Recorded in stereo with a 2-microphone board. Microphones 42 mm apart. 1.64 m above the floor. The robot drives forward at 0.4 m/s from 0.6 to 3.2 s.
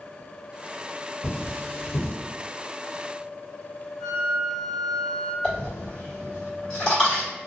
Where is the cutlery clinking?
45° left (ahead or behind), 1.7 m; by 2.1 s 50° left (ahead or behind), 1.5 m.